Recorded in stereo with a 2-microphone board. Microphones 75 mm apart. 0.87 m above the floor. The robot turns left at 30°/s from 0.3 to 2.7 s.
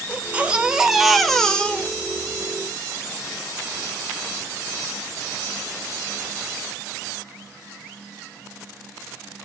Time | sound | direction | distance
0.1 | a baby crying | 155° right | 0.7 m